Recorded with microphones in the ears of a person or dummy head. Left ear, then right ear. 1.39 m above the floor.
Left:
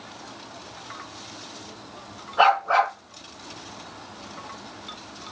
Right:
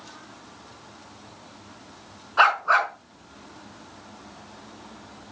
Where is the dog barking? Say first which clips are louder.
Even; 75° right (ahead or behind), 4.5 m.